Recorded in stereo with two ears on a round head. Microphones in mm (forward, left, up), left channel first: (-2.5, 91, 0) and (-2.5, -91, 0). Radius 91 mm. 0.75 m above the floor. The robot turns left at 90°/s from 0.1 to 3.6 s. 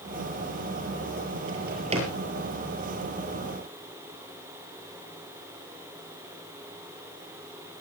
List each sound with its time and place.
1.5 s a drawer: 70° right (ahead or behind), 6.5 m; by 2.1 s 20° right (ahead or behind), 6.5 m